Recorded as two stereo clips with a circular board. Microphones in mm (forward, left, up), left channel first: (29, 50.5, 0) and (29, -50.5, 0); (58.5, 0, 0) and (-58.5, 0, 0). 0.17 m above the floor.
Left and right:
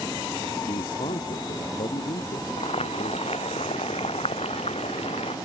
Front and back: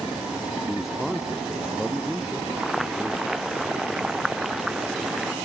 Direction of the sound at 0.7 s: 90° left.